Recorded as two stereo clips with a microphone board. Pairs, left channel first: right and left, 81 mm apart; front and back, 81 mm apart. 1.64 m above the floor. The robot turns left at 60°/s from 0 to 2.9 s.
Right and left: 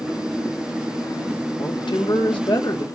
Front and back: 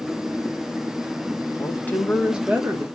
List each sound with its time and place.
1.6 s a woman speaking: 55° right, 1.6 m; by 2.8 s 130° right, 1.6 m